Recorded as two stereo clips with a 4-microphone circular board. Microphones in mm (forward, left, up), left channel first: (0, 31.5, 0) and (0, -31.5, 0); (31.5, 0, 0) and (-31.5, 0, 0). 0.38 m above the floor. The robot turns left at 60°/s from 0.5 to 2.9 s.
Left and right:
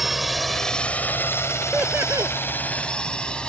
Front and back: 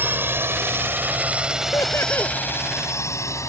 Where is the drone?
175° right; by 3.5 s 20° left.